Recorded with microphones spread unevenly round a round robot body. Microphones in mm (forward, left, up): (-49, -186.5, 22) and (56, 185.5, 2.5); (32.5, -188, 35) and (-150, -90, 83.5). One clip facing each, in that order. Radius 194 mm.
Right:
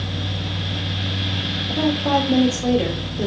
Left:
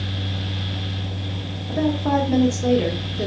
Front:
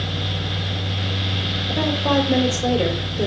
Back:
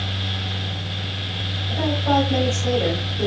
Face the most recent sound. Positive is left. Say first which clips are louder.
# even, front 1 dB
turn(degrees=-15)